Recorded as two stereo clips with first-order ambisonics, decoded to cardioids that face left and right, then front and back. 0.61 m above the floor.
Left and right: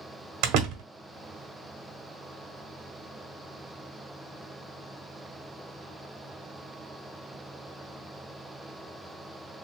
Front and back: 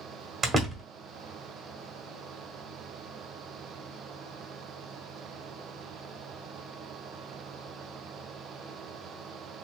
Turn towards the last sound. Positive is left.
turn(degrees=-115)